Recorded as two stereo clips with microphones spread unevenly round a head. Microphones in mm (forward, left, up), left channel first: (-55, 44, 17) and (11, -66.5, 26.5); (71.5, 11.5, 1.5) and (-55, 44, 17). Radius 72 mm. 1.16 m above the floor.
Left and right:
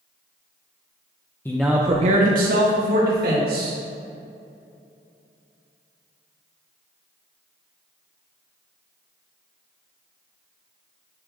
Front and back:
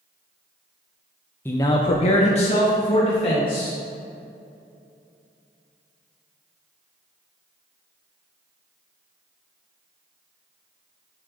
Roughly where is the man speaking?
Ahead left.